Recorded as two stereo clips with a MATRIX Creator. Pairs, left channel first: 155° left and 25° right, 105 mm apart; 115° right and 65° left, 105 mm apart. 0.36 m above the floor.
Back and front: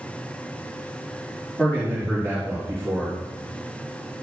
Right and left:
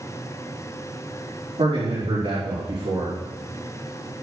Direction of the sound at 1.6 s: 85° left.